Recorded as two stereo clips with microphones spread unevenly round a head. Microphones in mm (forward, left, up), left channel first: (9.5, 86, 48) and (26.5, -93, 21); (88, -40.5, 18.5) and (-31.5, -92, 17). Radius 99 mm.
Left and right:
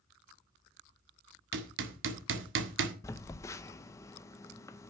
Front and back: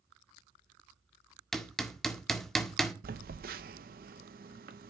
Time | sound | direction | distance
1.5 | hammering | 65° right | 1.7 m
3.0 | a phone buzzing | 170° left | 0.6 m